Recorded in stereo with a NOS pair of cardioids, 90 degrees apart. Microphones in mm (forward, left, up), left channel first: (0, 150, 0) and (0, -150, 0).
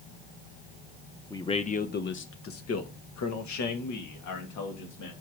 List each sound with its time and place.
1.3 s a man speaking: 10° left, 1.0 m; by 5.1 s 75° left, 2.5 m